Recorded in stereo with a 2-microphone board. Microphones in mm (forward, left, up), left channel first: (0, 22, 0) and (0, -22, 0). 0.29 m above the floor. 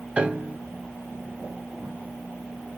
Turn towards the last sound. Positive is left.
turn(degrees=-25)  # may be behind; listen again after turning